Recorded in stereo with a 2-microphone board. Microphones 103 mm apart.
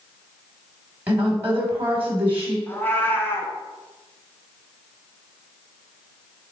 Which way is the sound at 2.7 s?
20° left (ahead or behind).